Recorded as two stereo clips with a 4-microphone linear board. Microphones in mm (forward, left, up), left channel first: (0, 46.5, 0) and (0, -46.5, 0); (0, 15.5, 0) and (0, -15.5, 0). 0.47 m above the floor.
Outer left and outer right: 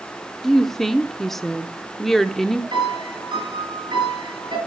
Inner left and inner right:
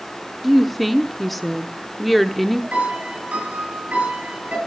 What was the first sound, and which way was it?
A woman speaking, 5° left (ahead or behind).